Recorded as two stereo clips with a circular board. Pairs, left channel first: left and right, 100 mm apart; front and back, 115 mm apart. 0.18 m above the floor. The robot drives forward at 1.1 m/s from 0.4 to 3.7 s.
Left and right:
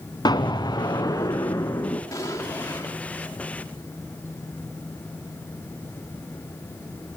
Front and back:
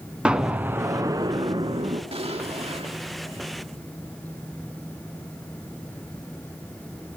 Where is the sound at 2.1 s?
145° left, 5 m; by 3.0 s 155° left, 6 m.